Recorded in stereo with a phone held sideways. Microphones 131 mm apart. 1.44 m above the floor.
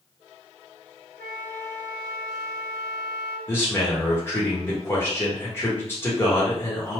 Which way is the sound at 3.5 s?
20° left (ahead or behind).